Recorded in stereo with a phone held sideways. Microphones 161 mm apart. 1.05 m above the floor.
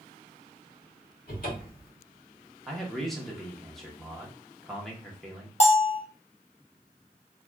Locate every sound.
1.3 s a cupboard door: 65° left (ahead or behind), 1.5 m
2.7 s a man speaking: centre (ahead or behind), 0.8 m
5.6 s a bell: 45° left (ahead or behind), 0.7 m